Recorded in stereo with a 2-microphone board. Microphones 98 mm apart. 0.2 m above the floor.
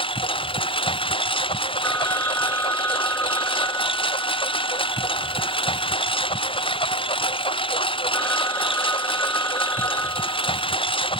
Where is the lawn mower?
65° left (ahead or behind).